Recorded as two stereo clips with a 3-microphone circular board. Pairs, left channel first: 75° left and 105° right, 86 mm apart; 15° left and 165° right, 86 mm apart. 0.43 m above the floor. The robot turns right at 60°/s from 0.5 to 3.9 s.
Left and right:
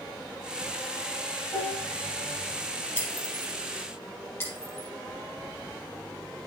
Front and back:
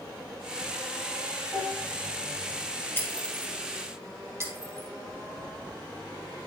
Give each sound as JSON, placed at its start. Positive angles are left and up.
{"t": 1.5, "sound": "dishes clattering", "azimuth_deg": 80, "distance_m": 5.5}
{"t": 3.0, "sound": "breaking glass", "azimuth_deg": 80, "distance_m": 2.5}